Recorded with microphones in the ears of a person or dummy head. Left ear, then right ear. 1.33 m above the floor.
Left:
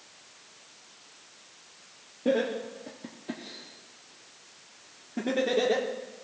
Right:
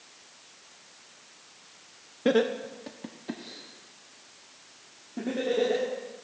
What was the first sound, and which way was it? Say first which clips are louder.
Laughter: right 2 dB; 55° right (ahead or behind).